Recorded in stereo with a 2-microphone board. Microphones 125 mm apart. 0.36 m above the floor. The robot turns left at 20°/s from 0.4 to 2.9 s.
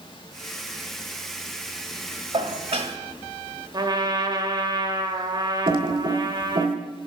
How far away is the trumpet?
About 1.6 m.